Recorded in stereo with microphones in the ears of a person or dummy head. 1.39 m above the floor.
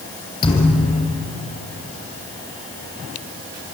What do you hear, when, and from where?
0.4 s a thud: 30° left (ahead or behind), 4 m